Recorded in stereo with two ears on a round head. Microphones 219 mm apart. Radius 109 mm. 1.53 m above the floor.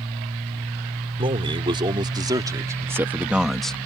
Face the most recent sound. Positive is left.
turn(degrees=5)  # may be behind; listen again after turning